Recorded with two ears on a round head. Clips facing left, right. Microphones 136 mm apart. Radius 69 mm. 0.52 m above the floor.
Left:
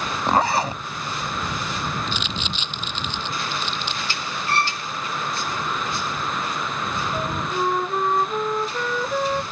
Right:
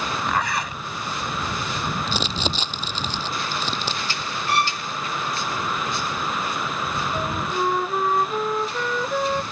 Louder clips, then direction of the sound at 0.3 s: Left 8 dB; 30° left (ahead or behind).